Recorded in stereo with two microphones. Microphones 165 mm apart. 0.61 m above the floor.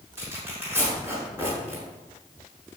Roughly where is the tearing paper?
Centre.